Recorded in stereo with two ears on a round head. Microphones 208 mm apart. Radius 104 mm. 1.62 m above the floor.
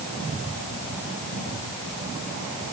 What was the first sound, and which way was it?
Only background noise.